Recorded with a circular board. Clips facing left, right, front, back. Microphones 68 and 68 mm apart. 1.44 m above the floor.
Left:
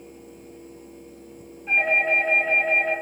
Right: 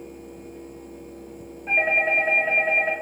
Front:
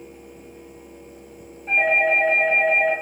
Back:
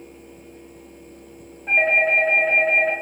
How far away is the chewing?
I don't hear chewing.